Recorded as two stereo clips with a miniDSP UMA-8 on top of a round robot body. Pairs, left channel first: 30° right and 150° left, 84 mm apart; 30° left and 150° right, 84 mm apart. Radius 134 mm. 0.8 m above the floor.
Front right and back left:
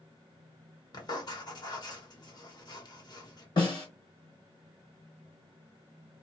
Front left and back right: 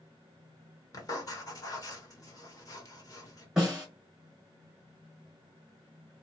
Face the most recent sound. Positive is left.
turn(degrees=-70)